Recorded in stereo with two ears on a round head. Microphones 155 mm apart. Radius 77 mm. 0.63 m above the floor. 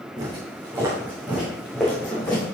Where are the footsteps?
30° right (ahead or behind), 3 m; by 2.5 s 15° left (ahead or behind), 3 m.